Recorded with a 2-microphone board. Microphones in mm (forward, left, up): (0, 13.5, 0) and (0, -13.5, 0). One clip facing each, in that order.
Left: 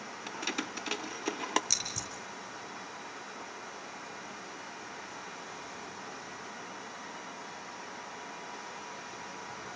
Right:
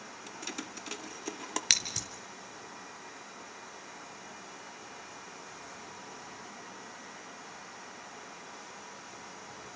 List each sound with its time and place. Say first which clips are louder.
0.3 s keys jangling: left 6 dB; 30° left (ahead or behind), 0.6 m
1.7 s scissors: right 5 dB; 80° right, 1.7 m